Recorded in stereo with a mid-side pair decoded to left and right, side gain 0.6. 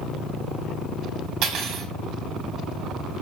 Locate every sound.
1.4 s cutlery clinking: 70° right, 1.2 m